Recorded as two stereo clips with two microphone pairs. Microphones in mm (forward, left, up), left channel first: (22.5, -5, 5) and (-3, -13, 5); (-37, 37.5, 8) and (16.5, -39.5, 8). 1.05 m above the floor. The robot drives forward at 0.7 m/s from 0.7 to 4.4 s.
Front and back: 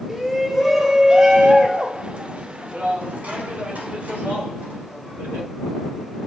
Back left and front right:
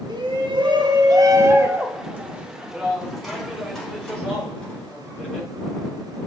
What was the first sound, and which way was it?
A shout, 90° right.